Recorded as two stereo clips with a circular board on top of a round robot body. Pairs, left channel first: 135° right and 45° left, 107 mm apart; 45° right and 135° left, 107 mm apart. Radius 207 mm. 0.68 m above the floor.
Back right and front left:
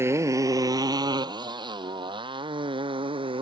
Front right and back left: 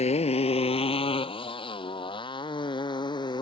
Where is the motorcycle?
25° right; by 3.4 s 5° left.